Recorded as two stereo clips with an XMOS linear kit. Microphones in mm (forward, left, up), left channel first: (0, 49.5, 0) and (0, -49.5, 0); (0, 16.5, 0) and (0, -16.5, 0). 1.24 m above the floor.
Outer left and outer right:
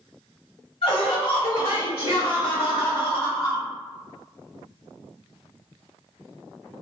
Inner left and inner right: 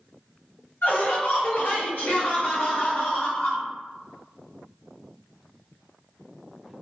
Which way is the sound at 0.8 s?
85° left.